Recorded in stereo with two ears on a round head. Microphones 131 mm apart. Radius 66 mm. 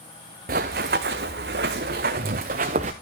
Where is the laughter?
I don't hear laughter.